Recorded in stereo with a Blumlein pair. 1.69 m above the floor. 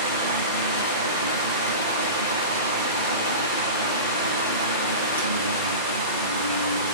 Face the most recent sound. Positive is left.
turn(degrees=70)